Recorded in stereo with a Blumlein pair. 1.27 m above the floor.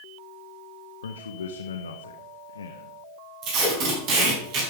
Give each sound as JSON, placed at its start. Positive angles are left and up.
{"t": 1.0, "sound": "a man speaking", "azimuth_deg": 70, "distance_m": 1.2}
{"t": 3.4, "sound": "tape being pulled", "azimuth_deg": -35, "distance_m": 4.5}